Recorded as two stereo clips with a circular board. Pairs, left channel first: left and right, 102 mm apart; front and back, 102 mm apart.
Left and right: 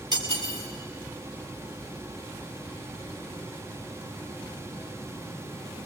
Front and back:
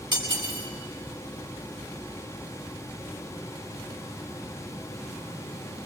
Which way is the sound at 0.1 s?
140° right.